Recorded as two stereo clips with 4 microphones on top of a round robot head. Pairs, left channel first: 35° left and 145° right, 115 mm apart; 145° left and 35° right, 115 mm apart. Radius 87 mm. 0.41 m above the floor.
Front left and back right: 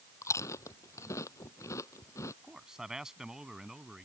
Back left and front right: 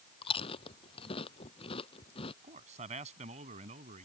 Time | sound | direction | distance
0.2 | chewing | 100° left | ?
2.4 | a man speaking | 60° right | ?